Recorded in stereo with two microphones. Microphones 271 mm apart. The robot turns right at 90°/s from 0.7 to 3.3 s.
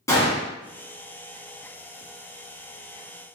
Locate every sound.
0.1 s a gunshot: 10° left (ahead or behind), 1.8 m